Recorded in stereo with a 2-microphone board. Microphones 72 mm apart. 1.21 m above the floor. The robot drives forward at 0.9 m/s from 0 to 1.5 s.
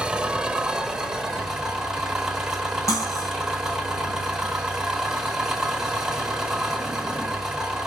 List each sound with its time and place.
0.0 s an engine running: 10° right (ahead or behind), 1.0 m; by 7.9 s 5° right (ahead or behind), 2 m
2.9 s cutlery clinking: 50° left (ahead or behind), 6.5 m